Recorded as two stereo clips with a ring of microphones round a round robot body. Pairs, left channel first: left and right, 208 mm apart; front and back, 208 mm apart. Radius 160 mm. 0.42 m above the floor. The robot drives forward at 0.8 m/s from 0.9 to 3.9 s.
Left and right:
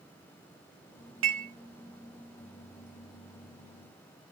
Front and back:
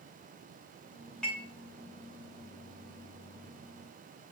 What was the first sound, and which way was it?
Dishes clattering, 85° right.